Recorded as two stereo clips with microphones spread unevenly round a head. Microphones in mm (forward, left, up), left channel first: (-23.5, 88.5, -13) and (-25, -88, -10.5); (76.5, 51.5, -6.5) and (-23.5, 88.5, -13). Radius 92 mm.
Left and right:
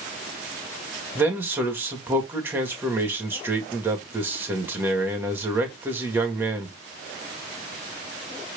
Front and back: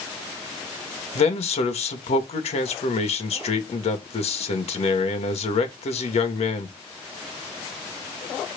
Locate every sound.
1.1 s a man speaking: 10° right, 1.9 m